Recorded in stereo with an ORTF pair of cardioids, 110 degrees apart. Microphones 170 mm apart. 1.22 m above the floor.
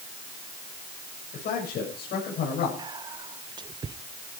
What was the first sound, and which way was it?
A man speaking, 65° left.